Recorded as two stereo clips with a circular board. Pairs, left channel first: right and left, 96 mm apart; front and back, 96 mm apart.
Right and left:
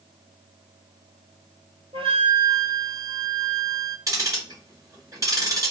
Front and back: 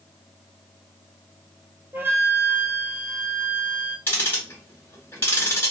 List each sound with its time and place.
1.9 s a flute: 110° left, 0.7 m
4.1 s ticking: 60° left, 2.0 m